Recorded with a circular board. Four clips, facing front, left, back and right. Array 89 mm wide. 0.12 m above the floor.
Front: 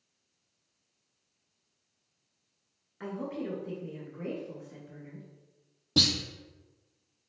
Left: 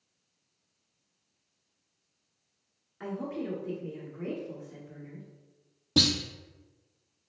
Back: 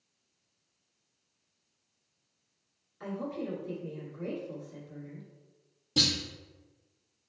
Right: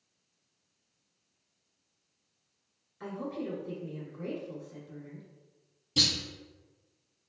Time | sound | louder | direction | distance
3.0 | a woman speaking | left 2 dB, even | 40° left | 1.5 m
6.0 | a clunk | left 7 dB, front 2 dB | 60° left | 0.7 m